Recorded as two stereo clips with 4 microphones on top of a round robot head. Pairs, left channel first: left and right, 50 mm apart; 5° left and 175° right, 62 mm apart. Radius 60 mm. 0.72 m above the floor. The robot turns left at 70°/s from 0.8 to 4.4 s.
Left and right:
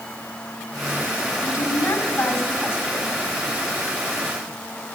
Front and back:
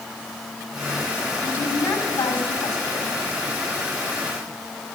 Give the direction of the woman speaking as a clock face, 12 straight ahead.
10 o'clock.